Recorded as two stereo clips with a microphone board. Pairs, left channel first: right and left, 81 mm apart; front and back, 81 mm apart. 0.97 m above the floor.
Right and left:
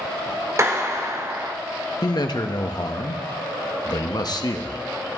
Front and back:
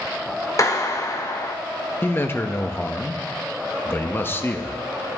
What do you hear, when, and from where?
0.6 s a clap: 40° left, 1.0 m
2.0 s a man speaking: 60° right, 0.9 m